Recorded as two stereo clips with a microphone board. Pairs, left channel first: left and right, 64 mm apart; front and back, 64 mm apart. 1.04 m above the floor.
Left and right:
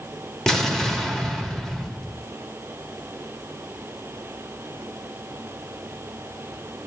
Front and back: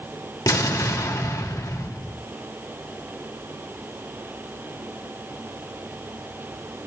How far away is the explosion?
About 1.5 m.